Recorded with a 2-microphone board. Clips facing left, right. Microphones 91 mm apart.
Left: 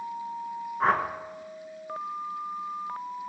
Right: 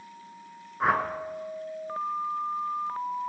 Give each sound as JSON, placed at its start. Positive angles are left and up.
{"t": 0.8, "sound": "a whoosh", "side_deg": -5, "distance_m": 0.6}